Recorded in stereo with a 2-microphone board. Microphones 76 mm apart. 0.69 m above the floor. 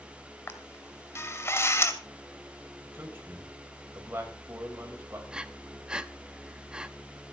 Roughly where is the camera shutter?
Left.